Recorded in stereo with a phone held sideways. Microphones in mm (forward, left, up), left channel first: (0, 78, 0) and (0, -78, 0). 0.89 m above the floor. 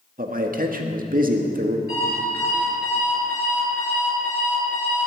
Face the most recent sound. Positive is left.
turn(degrees=-85)